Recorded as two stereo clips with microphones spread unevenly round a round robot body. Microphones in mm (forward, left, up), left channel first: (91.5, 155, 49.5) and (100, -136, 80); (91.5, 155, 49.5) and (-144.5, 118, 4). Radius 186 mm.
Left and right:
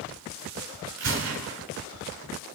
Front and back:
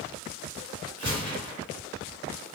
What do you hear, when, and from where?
1.0 s a gunshot: 55° right, 1.8 m